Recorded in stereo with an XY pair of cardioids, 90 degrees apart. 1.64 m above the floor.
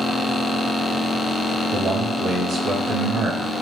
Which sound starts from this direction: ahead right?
A man speaking, at 1.7 s.